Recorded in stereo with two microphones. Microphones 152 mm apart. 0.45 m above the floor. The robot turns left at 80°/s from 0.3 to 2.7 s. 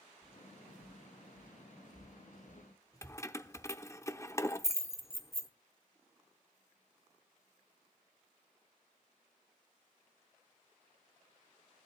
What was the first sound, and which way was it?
Footsteps, 25° right (ahead or behind).